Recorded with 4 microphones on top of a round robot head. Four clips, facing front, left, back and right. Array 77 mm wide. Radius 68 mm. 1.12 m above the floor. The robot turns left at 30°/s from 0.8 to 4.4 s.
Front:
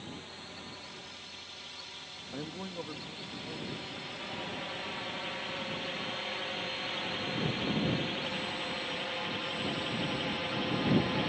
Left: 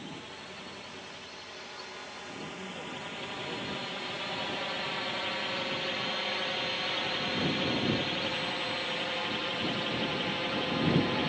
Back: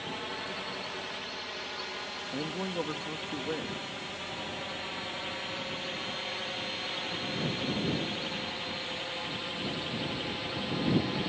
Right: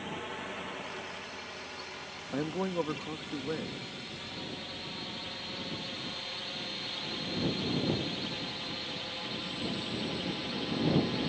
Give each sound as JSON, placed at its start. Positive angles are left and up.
{"t": 0.0, "sound": "a drone", "azimuth_deg": -150}
{"t": 2.3, "sound": "a man speaking", "azimuth_deg": -105}